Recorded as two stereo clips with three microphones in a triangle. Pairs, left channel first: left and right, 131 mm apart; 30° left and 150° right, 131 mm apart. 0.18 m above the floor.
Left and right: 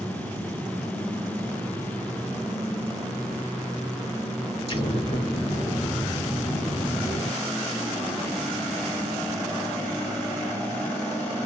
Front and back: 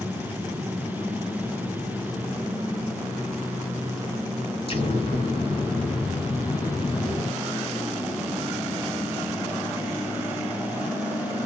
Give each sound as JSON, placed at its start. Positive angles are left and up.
{"t": 4.7, "sound": "an explosion", "azimuth_deg": 60, "distance_m": 2.0}